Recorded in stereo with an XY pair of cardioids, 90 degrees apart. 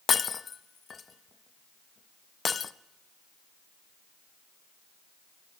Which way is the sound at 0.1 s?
40° left.